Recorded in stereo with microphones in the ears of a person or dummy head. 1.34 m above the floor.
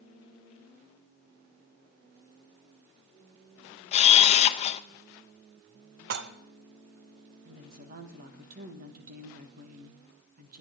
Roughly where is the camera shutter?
Left.